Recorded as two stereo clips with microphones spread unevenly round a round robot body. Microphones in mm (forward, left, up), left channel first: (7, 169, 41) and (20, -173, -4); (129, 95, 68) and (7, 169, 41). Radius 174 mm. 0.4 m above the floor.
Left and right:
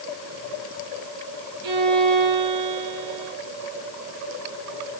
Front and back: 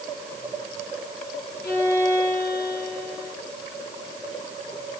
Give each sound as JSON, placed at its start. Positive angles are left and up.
{"t": 1.6, "sound": "a violin", "azimuth_deg": -120, "distance_m": 4.5}